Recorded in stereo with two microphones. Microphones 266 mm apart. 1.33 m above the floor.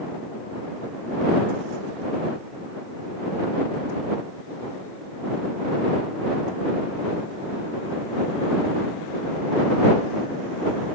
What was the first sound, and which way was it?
Only background noise.